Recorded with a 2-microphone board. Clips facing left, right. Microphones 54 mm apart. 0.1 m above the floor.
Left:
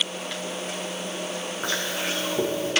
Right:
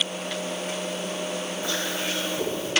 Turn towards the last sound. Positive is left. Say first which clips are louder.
# left 3 dB
turn(degrees=70)  # may be behind; listen again after turning